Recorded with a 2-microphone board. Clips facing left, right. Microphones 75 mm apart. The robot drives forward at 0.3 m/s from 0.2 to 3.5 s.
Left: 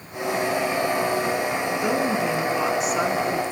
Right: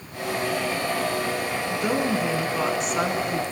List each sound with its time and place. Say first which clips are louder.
1.7 s a woman speaking: right 1 dB; centre (ahead or behind), 1.5 m; by 3.4 s 5° left (ahead or behind), 1.2 m